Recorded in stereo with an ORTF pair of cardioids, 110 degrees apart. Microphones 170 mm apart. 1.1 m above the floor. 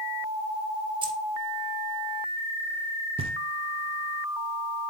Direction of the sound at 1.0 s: 30° right.